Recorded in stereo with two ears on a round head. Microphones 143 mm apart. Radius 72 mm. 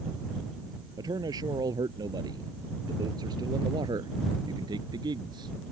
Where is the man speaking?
25° right (ahead or behind); by 5.5 s 30° right (ahead or behind).